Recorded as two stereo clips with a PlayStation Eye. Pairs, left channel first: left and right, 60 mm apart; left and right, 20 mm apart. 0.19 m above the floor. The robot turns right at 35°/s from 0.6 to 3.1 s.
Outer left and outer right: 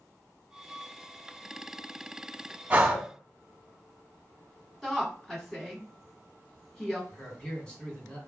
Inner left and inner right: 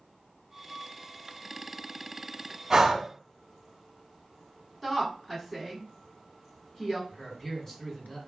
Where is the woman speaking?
5° left (ahead or behind), 1.8 m.